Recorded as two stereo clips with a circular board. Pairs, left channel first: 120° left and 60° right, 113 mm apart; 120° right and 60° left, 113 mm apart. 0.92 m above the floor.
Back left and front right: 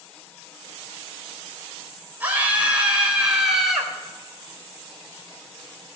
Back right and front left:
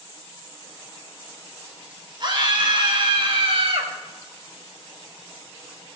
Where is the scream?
15° left, 4 m; by 3.9 s 30° left, 4 m.